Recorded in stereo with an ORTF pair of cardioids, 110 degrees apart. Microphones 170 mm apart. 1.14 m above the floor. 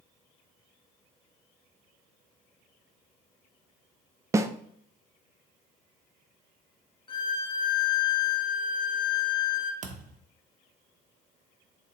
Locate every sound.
4.3 s a snare drum: 20° right, 0.6 m
7.1 s a violin: 25° left, 1.0 m
9.8 s a thud: 50° right, 1.3 m